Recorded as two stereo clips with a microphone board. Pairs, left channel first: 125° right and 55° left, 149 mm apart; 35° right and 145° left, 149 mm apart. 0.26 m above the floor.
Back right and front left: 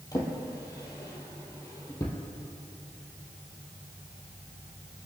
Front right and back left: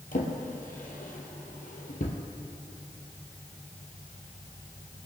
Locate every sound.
0.1 s a drawer: 60° right, 2.5 m